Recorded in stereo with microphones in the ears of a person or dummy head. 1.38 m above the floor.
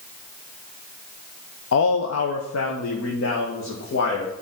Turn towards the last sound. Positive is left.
turn(degrees=60)  # may be behind; listen again after turning